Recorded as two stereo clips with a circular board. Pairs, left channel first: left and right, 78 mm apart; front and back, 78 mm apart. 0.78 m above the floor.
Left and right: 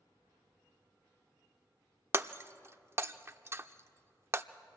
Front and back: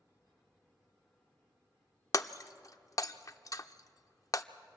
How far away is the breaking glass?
About 0.5 m.